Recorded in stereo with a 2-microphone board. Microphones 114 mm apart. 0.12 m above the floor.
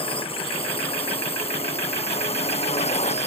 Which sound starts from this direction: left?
A drone, at 0.0 s.